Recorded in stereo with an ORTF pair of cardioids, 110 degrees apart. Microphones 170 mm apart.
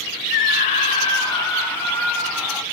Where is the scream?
65° left, 1.1 m; by 2.6 s straight ahead, 2.5 m.